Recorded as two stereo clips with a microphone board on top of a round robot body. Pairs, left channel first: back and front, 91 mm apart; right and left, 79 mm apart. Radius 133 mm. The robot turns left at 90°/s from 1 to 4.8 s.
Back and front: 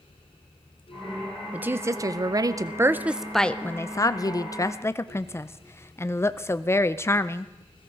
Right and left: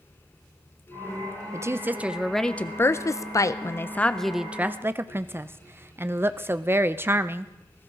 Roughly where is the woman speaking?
Left.